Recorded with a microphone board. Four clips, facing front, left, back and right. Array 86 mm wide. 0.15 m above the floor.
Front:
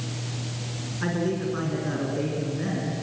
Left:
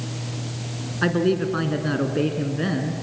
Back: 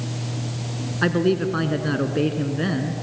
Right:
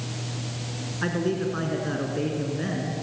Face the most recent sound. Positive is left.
turn(degrees=150)